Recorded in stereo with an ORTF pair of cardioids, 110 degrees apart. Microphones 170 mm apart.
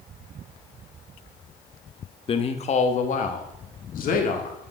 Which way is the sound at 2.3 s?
35° left.